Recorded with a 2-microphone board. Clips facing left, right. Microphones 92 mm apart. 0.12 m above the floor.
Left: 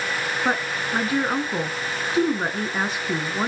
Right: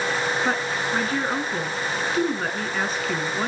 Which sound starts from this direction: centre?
A woman speaking, at 0.5 s.